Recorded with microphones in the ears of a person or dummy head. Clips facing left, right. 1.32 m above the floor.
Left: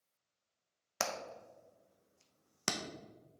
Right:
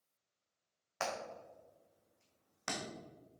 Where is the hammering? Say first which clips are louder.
Even; 45° left (ahead or behind), 0.8 m.